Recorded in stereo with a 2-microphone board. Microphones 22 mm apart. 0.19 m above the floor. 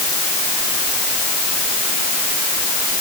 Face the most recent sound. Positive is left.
No sound to turn to.